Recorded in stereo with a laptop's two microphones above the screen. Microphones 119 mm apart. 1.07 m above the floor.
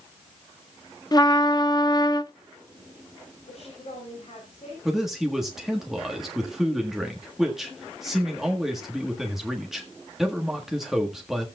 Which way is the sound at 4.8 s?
5° right (ahead or behind).